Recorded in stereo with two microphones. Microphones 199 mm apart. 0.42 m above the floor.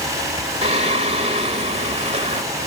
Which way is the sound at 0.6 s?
30° right (ahead or behind).